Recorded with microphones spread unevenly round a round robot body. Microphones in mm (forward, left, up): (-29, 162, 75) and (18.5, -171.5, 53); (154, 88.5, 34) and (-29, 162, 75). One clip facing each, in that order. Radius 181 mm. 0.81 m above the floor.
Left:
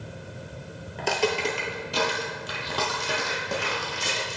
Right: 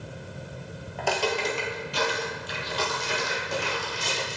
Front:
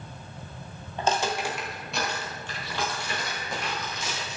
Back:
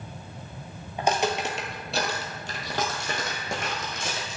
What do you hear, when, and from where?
1.0 s footsteps: 120° left, 0.8 m; by 4.4 s 130° left, 2.5 m